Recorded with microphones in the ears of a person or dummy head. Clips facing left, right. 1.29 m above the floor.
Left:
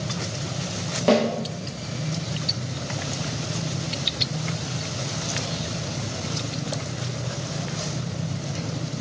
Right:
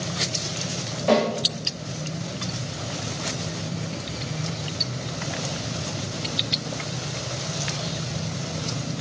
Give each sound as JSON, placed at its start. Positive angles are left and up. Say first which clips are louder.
{"t": 1.1, "sound": "a snare drum", "louder": "left 1 dB", "side_deg": 50, "distance_m": 1.1}